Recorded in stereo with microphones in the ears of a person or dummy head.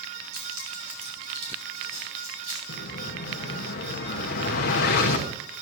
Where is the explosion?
60° left (ahead or behind), 1.2 m.